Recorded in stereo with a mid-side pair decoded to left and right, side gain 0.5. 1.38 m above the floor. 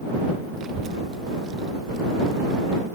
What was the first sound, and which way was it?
A child speaking, 60° right.